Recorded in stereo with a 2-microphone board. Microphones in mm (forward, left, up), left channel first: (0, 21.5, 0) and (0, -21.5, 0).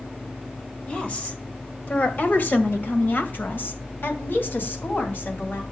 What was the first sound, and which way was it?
A woman speaking, 30° left (ahead or behind).